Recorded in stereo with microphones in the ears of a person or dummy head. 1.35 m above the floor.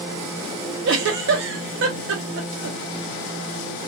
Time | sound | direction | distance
0.8 | a giggle | 65° right (ahead or behind) | 0.8 m